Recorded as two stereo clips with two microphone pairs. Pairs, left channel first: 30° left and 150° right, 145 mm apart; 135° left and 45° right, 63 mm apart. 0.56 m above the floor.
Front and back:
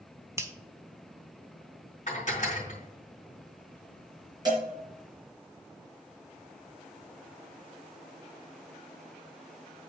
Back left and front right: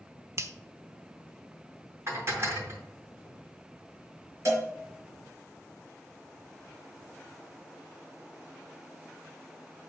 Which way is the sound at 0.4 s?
80° right.